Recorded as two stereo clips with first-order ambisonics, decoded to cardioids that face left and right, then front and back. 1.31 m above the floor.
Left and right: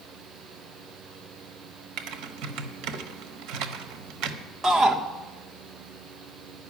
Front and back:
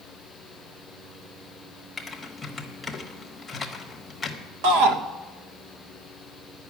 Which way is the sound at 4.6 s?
170° right.